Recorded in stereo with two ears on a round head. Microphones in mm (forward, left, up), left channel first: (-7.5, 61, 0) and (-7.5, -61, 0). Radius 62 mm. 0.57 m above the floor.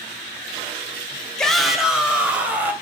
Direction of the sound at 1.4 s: 5° left (ahead or behind).